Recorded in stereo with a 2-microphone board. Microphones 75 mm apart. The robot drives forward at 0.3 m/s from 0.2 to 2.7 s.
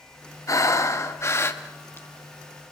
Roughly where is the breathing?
Left.